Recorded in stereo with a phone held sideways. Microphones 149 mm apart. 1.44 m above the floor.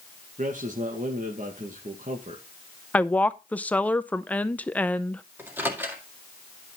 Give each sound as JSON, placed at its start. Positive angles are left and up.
{"t": 0.4, "sound": "a man speaking", "side_deg": -60, "distance_m": 1.9}
{"t": 2.9, "sound": "a woman speaking", "side_deg": 10, "distance_m": 0.6}
{"t": 5.4, "sound": "a microwave", "side_deg": -15, "distance_m": 2.0}